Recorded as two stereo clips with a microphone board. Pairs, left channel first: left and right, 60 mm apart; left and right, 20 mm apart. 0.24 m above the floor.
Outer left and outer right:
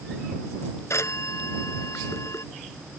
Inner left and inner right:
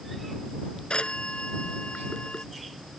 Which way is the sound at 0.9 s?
50° left (ahead or behind).